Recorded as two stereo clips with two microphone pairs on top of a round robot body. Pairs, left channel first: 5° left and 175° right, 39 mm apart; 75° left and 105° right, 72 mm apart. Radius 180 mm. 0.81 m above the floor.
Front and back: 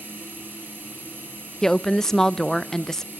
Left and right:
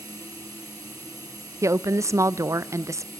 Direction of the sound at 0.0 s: 140° right.